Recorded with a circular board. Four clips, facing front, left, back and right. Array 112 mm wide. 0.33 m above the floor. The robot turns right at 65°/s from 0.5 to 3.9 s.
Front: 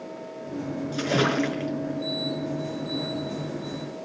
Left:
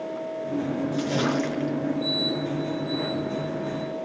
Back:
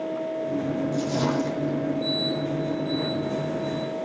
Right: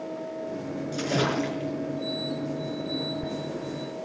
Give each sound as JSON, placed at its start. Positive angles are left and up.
{"t": 0.9, "sound": "a splash", "azimuth_deg": -20, "distance_m": 4.0}